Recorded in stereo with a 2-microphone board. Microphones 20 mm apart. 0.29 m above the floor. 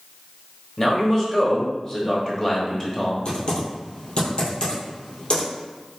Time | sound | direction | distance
0.8 | a man speaking | 20° left (ahead or behind) | 1.1 m
3.2 | typing on a keyboard | 45° left (ahead or behind) | 1.7 m